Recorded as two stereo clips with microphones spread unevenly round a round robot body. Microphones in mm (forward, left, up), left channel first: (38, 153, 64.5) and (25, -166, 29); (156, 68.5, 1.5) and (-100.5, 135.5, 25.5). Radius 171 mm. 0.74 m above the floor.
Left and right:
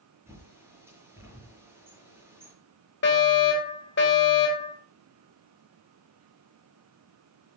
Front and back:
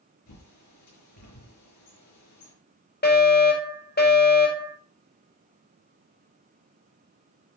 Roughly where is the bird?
Ahead.